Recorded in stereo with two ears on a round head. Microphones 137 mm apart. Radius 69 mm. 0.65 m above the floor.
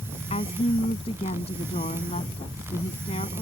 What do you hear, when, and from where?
0.3 s a woman speaking: 40° left (ahead or behind)